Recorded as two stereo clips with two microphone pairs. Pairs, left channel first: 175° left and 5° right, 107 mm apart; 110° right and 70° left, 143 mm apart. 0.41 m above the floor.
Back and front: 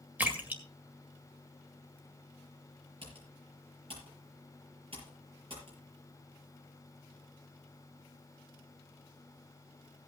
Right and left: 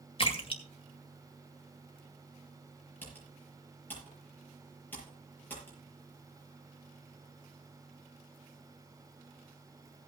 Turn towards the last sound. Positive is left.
turn(degrees=-35)